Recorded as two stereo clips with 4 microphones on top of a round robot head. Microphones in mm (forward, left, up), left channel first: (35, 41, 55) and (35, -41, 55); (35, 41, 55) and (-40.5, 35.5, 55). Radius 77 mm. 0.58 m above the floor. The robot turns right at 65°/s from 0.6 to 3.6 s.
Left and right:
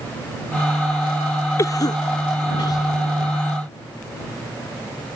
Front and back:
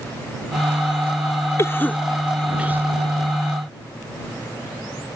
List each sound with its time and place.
1.6 s a cough: 50° left; by 2.9 s 130° left